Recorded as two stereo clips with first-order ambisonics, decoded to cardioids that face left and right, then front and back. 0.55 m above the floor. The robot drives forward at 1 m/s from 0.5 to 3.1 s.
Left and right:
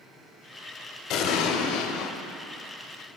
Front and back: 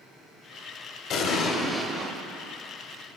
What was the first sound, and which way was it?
An explosion, 45° left.